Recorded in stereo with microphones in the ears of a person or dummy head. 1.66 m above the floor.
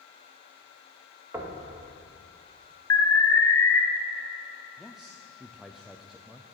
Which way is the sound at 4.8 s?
Centre (ahead or behind).